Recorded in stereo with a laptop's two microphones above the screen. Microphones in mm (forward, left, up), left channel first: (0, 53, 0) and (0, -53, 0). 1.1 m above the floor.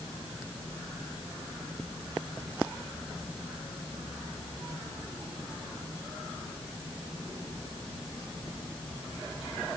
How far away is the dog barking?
I don't hear a dog barking.